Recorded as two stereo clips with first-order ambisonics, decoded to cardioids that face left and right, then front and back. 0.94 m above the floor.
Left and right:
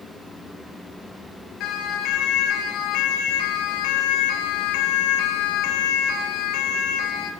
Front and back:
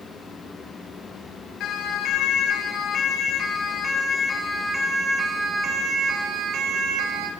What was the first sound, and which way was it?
A siren, 45° left.